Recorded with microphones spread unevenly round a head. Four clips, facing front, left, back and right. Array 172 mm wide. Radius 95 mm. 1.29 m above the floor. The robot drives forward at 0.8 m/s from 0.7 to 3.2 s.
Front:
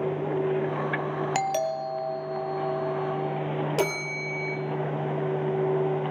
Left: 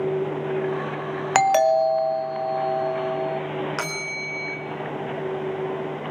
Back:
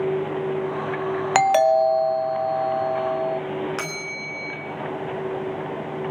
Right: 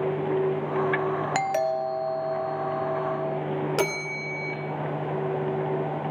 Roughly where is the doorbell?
Behind left.